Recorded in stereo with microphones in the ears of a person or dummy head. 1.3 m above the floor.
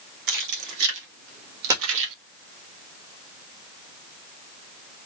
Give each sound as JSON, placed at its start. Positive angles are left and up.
{"t": 0.3, "sound": "keys jangling", "side_deg": -65, "distance_m": 2.0}
{"t": 1.7, "sound": "a dropped coin", "side_deg": -20, "distance_m": 0.8}